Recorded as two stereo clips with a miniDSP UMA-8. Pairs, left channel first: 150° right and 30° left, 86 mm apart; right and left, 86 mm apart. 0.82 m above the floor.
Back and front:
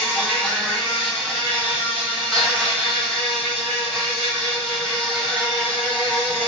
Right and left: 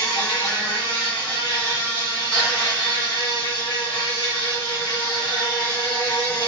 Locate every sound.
0.0 s an insect: 70° right, 1.2 m